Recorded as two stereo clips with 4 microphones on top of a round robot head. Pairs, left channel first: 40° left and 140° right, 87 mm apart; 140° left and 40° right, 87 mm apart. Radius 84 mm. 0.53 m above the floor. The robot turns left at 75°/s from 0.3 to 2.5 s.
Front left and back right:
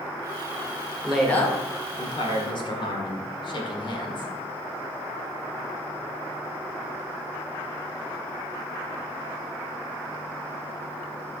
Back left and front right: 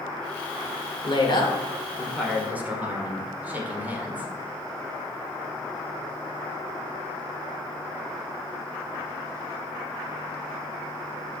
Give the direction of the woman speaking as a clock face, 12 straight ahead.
7 o'clock.